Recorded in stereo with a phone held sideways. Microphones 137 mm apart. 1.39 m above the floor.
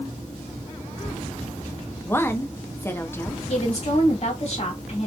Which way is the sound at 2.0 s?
15° left (ahead or behind).